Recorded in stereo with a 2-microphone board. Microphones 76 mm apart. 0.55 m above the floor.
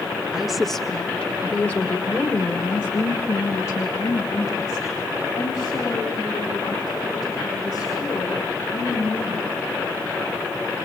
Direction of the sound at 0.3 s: 5° right (ahead or behind).